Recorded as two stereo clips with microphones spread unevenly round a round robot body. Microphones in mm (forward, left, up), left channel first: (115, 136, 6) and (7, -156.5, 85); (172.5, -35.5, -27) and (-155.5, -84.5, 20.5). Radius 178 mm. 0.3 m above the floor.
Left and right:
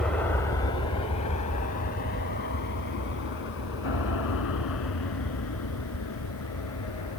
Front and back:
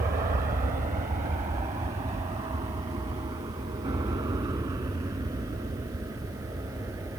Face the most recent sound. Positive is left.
turn(degrees=105)